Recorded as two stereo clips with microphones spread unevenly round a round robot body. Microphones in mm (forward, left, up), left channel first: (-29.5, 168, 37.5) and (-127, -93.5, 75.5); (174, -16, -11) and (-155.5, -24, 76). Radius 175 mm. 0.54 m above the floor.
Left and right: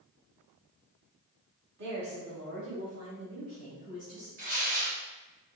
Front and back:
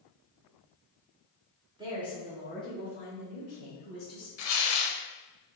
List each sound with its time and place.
1.8 s a woman speaking: 95° right, 1.9 m; by 4.3 s 40° right, 3.5 m
4.4 s tearing paper: 45° right, 0.8 m